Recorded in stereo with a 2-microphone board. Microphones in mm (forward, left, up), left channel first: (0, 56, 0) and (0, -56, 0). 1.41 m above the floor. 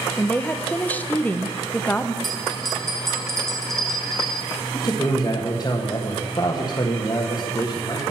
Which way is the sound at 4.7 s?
35° left (ahead or behind).